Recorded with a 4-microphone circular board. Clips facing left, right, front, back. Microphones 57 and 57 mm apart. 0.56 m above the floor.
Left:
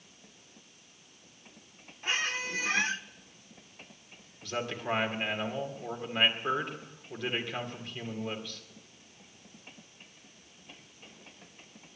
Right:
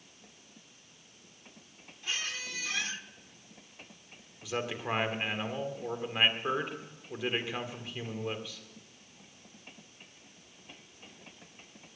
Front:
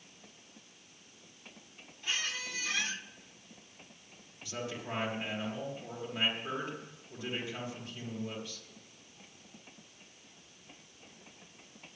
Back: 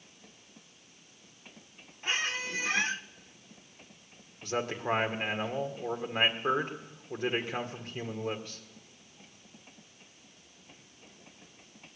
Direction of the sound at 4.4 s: 175° right.